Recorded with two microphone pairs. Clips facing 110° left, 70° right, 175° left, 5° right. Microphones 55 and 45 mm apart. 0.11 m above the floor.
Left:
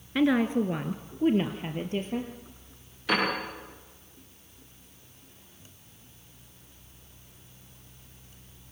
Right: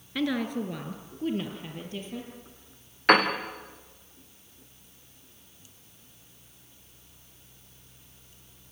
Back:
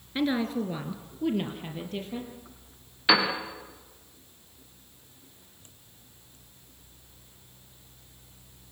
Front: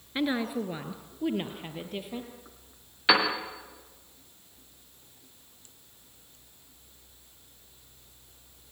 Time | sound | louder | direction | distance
0.1 | a woman speaking | left 5 dB, back 2 dB | 65° left | 1.3 m
3.1 | a piano | right 6 dB, even | 90° right | 6.5 m